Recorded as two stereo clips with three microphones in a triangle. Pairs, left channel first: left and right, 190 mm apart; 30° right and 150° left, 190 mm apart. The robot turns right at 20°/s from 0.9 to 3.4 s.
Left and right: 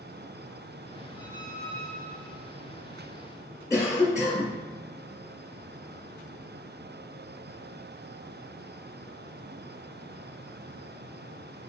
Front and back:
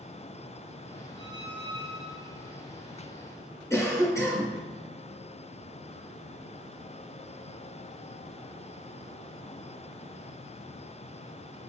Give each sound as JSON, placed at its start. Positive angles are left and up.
{"t": 1.2, "sound": "a squeak", "azimuth_deg": 145, "distance_m": 1.2}
{"t": 3.7, "sound": "a cough", "azimuth_deg": 30, "distance_m": 1.5}